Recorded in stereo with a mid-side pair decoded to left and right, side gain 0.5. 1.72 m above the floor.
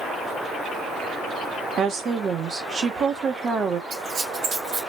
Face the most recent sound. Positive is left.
turn(degrees=-70)